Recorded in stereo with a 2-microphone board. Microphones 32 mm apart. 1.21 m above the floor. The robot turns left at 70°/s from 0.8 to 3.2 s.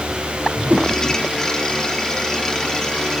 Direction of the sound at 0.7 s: 60° right (ahead or behind).